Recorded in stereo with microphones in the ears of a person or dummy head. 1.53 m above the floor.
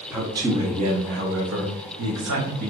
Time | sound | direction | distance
0.1 | a man speaking | 10° right (ahead or behind) | 0.8 m